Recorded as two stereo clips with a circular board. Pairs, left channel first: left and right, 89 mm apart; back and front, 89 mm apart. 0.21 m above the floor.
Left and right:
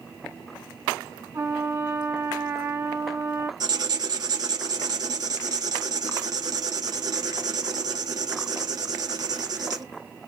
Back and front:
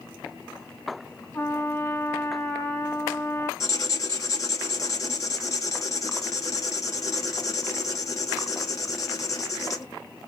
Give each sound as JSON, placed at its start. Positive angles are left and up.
{"t": 1.3, "sound": "a trumpet", "azimuth_deg": -130, "distance_m": 1.6}
{"t": 3.6, "sound": "writing", "azimuth_deg": -130, "distance_m": 0.8}